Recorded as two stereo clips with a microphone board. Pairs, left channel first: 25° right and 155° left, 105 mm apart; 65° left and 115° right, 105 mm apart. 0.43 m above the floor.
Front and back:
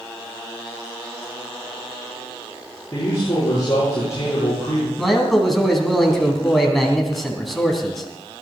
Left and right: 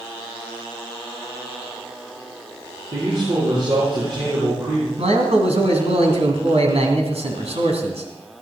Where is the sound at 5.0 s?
110° right, 3 m.